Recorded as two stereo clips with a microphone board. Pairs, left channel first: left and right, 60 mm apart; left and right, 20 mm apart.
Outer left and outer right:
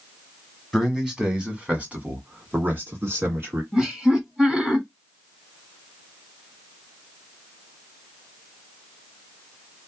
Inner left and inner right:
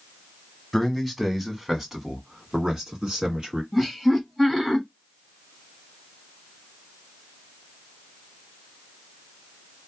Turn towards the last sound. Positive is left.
turn(degrees=-15)  # may be behind; listen again after turning